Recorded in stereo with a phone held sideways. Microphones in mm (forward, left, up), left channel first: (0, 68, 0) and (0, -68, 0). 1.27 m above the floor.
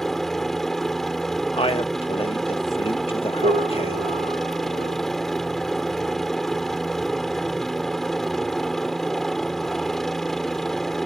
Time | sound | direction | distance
0.0 | a helicopter | centre (ahead or behind) | ?
1.5 | a man speaking | 45° left (ahead or behind) | ?
3.4 | a piano | 85° right | ?